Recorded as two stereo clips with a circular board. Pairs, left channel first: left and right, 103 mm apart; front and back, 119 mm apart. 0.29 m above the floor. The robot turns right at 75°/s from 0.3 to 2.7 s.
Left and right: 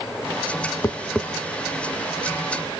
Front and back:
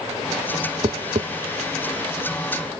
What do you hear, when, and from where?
0.8 s tapping: 145° left, 0.6 m; by 1.3 s straight behind, 0.6 m